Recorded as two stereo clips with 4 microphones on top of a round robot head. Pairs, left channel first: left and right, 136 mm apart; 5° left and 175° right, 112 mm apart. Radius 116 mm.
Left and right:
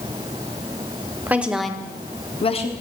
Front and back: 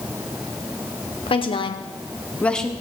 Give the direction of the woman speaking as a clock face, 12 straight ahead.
1 o'clock.